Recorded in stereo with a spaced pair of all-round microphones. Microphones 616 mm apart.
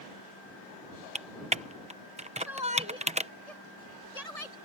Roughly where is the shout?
Left.